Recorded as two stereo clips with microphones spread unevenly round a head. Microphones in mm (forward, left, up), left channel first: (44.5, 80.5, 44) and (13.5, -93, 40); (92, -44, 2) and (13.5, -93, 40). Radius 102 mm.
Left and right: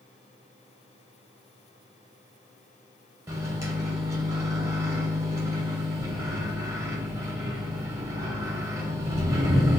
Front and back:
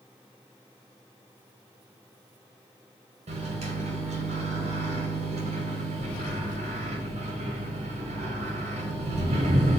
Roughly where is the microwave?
Behind.